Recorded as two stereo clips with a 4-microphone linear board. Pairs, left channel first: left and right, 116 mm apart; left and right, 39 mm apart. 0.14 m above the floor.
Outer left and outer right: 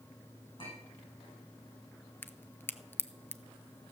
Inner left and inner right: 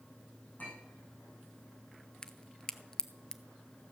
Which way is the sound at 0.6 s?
50° left (ahead or behind).